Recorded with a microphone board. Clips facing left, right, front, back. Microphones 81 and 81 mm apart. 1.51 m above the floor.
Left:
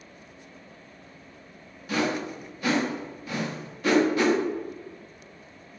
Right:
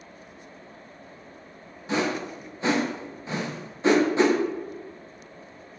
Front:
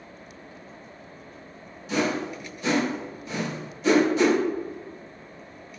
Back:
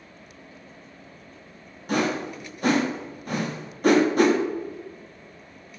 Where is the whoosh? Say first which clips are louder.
Right 1 dB, back 1 dB; 150° right, 0.6 m.